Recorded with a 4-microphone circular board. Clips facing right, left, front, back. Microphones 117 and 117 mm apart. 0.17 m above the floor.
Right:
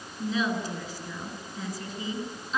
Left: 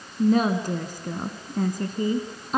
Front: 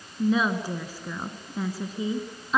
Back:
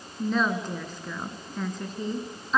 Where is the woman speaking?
80° left, 2 m.